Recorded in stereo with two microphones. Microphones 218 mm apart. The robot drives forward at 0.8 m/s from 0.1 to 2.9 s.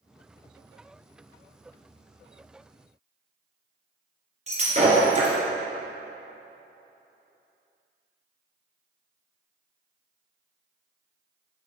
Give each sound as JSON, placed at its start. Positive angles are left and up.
{"t": 4.5, "sound": "breaking glass", "side_deg": -35, "distance_m": 2.5}